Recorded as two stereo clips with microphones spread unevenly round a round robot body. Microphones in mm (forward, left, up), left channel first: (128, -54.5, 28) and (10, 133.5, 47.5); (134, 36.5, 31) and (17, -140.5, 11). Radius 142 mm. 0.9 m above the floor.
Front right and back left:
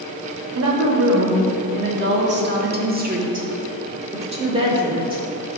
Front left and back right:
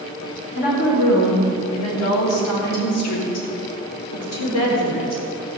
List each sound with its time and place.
0.6 s a woman speaking: 110° left, 2.5 m; by 5.2 s 50° left, 4 m